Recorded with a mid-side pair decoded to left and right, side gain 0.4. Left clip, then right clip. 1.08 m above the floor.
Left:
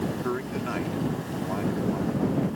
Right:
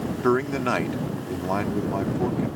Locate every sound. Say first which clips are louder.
0.2 s a man speaking: right 8 dB; 65° right